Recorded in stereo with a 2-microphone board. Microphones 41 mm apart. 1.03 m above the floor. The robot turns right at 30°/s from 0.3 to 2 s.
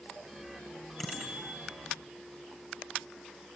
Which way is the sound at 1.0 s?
Centre (ahead or behind).